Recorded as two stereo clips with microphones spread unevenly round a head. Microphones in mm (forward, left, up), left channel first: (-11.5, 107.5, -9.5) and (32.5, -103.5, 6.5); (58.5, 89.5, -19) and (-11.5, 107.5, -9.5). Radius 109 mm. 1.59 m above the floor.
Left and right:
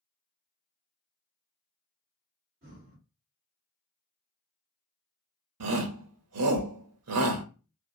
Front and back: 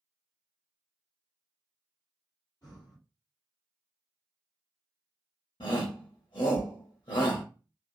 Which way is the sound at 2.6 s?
50° right.